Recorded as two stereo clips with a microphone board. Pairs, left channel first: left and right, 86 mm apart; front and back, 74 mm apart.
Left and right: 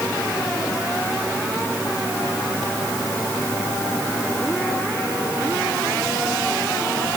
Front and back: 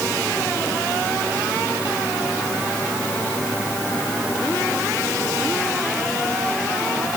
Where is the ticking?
No ticking in this recording.